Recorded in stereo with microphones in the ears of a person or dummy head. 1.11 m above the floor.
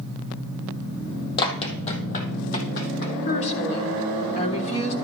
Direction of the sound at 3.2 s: 40° left (ahead or behind).